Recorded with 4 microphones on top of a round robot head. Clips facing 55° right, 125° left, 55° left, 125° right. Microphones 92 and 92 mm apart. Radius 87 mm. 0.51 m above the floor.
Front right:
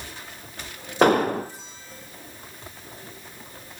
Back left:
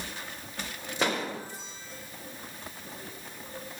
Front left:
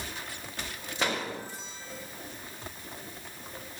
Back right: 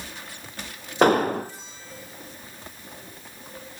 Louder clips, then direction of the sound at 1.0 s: Front right 12 dB, back right 14 dB; 90° right.